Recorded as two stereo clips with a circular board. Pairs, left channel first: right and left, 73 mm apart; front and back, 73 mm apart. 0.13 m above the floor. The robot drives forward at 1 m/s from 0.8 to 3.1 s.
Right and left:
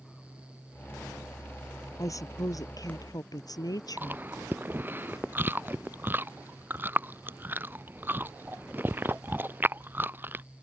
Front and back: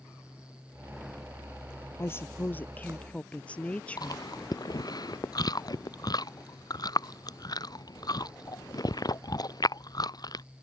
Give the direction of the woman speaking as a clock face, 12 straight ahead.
2 o'clock.